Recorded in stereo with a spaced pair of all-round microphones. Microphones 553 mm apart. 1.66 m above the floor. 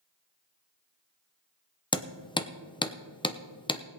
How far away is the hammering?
About 0.7 m.